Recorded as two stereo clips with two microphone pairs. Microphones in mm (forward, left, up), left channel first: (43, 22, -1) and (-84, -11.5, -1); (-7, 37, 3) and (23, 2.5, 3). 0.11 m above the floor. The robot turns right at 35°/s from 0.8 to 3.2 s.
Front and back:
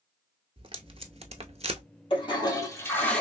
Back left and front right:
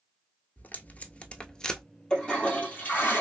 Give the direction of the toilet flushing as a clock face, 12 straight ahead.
10 o'clock.